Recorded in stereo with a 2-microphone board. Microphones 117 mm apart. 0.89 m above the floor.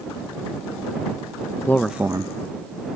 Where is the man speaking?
25° left (ahead or behind); by 3.0 s 65° right (ahead or behind).